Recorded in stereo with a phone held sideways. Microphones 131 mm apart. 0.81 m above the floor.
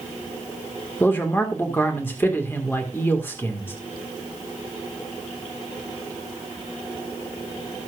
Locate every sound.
1.0 s a man speaking: 15° left (ahead or behind), 1.9 m